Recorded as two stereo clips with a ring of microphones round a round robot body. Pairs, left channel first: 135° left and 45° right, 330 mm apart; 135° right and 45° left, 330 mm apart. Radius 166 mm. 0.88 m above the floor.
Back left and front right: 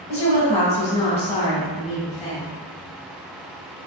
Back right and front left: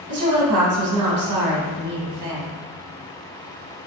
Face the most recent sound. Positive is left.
turn(degrees=65)